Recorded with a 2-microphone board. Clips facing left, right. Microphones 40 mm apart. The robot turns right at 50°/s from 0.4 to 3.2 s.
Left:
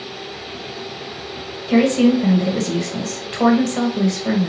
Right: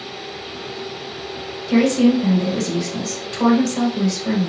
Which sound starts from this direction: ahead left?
A woman speaking, at 1.7 s.